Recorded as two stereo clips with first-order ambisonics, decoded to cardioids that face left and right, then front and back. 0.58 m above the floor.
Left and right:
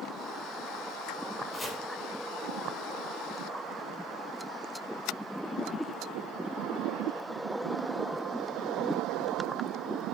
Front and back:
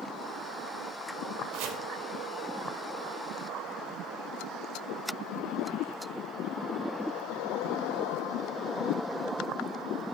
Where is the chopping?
170° left, 2 m.